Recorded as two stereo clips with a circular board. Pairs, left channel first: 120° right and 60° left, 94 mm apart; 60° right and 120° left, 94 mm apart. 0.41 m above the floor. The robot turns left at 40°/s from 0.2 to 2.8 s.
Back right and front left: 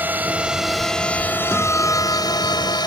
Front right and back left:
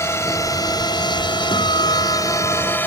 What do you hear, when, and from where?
0.0 s a drone: 5° right; by 2.9 s 120° right
1.5 s a guitar: 40° right; by 2.8 s 90° right